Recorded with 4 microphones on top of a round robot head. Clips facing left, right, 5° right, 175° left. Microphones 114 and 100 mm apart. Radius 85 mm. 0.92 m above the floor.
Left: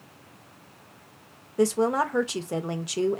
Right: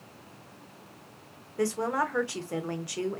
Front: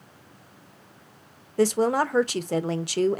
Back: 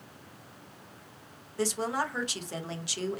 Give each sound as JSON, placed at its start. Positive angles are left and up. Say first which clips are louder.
{"t": 1.6, "sound": "a woman speaking", "louder": "left 5 dB, front 9 dB", "azimuth_deg": 25, "distance_m": 0.5}